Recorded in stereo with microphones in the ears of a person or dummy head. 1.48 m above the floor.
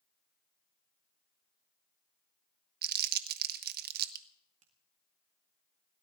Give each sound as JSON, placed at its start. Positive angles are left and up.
{"t": 2.8, "sound": "crumpling", "side_deg": -55, "distance_m": 0.9}
{"t": 4.6, "sound": "a finger snap", "side_deg": -45, "distance_m": 2.0}